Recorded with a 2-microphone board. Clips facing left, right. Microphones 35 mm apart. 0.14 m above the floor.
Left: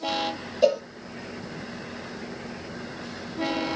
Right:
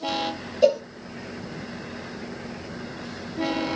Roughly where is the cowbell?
Centre.